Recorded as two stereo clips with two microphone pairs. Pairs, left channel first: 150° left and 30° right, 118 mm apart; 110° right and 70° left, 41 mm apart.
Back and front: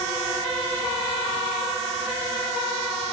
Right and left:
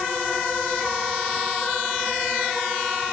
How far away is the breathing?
No breathing in this recording.